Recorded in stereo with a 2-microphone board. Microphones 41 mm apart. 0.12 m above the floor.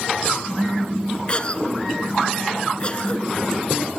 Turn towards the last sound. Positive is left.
turn(degrees=30)  # may be behind; listen again after turning